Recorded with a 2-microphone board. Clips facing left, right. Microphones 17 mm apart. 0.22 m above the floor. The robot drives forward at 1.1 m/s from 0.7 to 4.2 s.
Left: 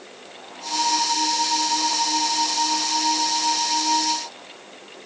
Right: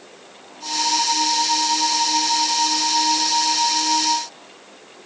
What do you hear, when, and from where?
Only background noise.